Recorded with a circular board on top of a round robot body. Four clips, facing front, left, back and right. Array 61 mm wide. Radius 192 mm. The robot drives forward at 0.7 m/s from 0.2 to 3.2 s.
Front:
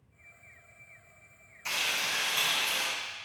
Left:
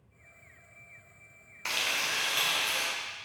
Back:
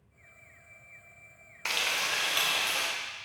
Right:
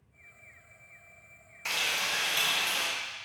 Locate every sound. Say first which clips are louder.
1.6 s frying: even, back 2 dB; 160° left, 1.9 m; by 2.9 s 165° left, 2.5 m